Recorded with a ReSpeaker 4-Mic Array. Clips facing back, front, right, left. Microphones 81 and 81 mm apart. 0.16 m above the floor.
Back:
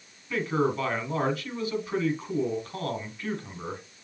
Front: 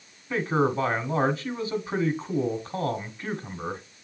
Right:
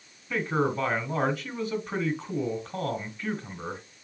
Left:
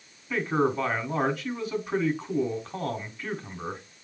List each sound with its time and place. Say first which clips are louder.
0.3 s a man speaking: front 2 dB, left 2 dB; 5° left, 1.2 m